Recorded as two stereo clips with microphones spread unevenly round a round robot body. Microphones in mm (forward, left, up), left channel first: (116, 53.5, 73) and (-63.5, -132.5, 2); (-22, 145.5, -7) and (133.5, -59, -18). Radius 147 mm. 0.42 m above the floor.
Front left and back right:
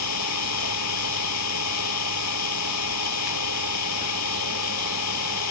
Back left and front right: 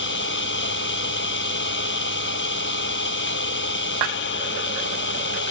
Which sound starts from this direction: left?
An engine running, at 0.0 s.